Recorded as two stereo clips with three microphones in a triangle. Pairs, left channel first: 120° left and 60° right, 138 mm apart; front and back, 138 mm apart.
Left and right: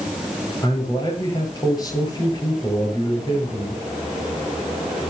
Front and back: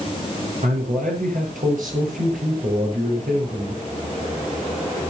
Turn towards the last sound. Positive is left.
turn(degrees=180)